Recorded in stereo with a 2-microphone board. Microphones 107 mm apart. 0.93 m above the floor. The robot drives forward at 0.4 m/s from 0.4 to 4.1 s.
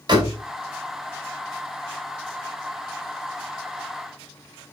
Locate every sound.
0.1 s a door slam: 40° right (ahead or behind), 2.5 m